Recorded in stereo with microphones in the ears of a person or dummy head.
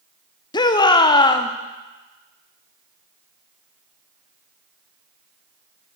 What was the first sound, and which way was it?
A shout, 25° left (ahead or behind).